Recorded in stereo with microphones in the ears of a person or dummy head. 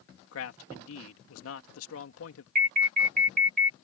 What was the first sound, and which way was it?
A man speaking, 80° left.